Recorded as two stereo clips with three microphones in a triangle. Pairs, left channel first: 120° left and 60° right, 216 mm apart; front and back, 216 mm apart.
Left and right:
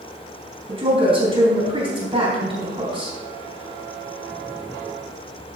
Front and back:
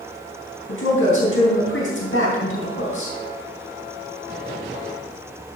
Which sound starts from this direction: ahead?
A woman speaking, at 0.7 s.